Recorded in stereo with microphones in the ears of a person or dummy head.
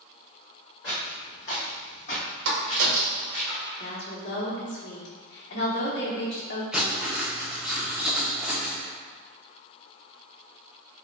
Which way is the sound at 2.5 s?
75° right (ahead or behind).